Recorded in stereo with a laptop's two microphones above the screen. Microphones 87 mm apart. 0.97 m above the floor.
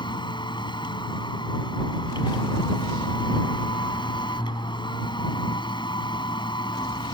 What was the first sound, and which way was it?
A machine running, 65° left (ahead or behind).